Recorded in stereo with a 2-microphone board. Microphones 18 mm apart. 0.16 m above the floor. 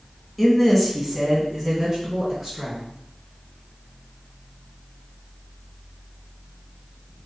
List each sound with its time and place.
0.4 s a woman speaking: centre (ahead or behind), 1.1 m; by 2.8 s 25° right (ahead or behind), 1.7 m